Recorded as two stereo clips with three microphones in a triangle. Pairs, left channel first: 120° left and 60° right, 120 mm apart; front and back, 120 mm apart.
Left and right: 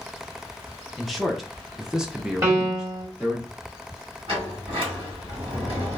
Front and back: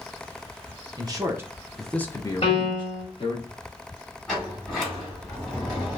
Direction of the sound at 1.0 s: 150° right.